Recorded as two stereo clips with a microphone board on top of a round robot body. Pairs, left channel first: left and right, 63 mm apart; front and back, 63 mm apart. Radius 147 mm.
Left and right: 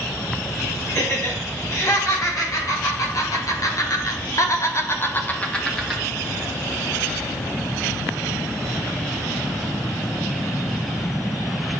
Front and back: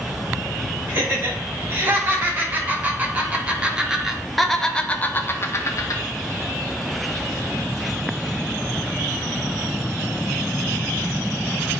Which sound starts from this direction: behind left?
Laughter, at 0.9 s.